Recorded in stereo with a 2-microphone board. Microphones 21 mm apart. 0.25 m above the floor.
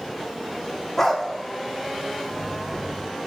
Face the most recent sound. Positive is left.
turn(degrees=20)  # may be behind; listen again after turning